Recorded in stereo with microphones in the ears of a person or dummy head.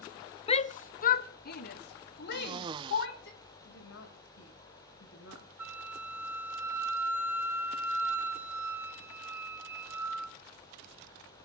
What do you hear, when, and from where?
0.5 s a shout: 35° left (ahead or behind), 0.7 m; by 3.3 s 65° left (ahead or behind), 3 m
2.3 s a cough: 30° right (ahead or behind), 0.7 m
3.6 s a woman speaking: 80° left, 5.5 m
5.6 s a flute: 10° right (ahead or behind), 1.3 m